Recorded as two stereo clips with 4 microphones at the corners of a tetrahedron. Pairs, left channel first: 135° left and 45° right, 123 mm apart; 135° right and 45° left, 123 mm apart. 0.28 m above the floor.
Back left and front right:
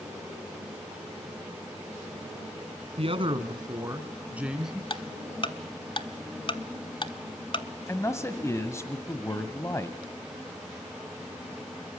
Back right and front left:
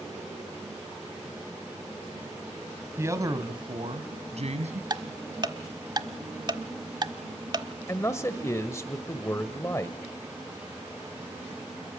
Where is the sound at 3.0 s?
20° right, 2.5 m; by 4.8 s 45° left, 3.5 m.